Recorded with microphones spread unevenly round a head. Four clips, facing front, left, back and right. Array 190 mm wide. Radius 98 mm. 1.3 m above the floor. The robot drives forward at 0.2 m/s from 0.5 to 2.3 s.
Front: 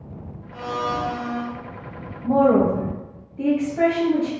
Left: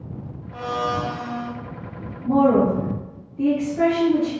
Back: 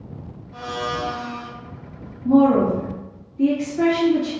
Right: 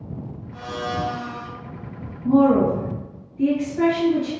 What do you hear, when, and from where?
0.5 s a blender: 100° left, 1.1 m; by 1.5 s 110° left, 1.2 m
2.2 s a woman speaking: 35° left, 0.9 m